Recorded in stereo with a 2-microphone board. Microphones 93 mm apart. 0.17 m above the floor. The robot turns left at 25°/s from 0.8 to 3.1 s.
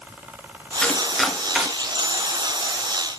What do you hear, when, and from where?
0.8 s chopping: 10° left (ahead or behind), 1.7 m; by 1.7 s 10° right (ahead or behind), 1.7 m